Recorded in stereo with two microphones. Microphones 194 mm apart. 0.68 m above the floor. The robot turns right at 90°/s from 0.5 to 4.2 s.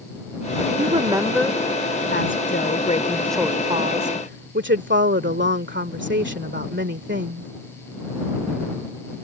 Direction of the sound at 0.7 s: 60° right.